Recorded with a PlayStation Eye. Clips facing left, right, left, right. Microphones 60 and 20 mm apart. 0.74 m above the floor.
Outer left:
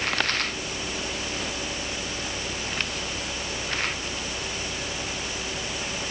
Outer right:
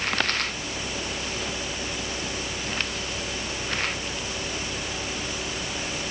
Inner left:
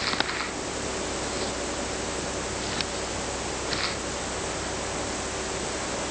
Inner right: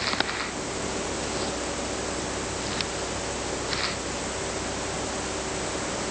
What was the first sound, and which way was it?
Only background noise.